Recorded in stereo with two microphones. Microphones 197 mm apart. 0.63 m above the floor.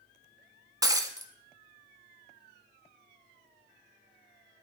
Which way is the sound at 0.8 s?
20° right (ahead or behind).